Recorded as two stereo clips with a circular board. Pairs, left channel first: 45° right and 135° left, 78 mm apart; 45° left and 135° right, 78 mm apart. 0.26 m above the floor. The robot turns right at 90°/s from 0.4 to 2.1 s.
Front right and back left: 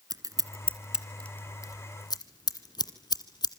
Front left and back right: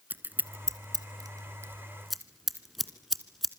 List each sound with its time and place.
0.1 s scissors: 165° left, 1.9 m; by 3.5 s 45° right, 1.9 m